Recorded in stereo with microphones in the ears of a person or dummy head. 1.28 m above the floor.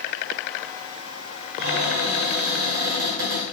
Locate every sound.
1.6 s a cupboard door: 70° right (ahead or behind), 1.6 m